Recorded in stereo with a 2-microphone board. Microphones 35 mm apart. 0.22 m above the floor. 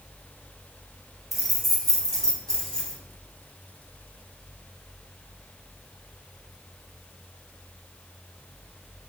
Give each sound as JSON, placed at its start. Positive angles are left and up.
{"t": 1.3, "sound": "keys jangling", "side_deg": 0, "distance_m": 1.0}